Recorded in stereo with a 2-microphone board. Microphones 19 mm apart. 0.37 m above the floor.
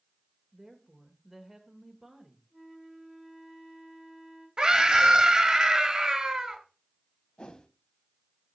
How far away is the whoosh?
About 0.6 m.